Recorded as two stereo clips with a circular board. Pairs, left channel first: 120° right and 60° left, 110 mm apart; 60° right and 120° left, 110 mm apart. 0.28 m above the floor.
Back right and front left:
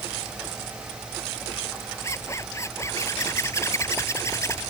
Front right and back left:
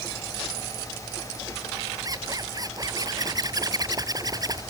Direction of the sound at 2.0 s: 175° left.